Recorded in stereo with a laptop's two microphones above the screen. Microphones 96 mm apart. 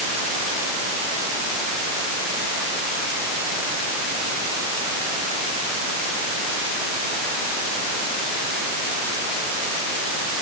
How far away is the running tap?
I don't hear a running tap.